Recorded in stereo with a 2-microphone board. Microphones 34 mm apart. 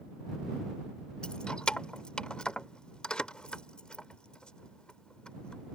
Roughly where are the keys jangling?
Left.